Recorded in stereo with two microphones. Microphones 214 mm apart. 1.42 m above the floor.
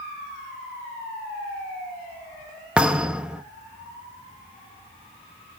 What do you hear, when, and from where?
2.8 s a thud: 5° right (ahead or behind), 0.7 m